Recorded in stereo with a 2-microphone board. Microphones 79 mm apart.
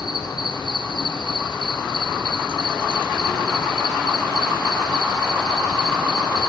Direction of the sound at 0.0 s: 70° left (ahead or behind).